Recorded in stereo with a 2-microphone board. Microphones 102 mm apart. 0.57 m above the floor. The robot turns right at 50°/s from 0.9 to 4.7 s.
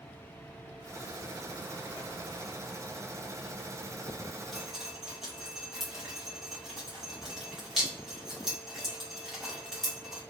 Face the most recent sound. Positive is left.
turn(degrees=-5)  # may be behind; listen again after turning